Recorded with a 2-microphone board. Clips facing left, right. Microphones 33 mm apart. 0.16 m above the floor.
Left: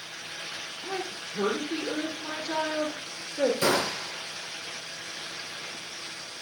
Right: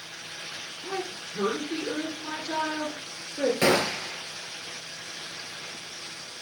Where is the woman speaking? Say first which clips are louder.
Right 1 dB; 10° right (ahead or behind), 2.5 m.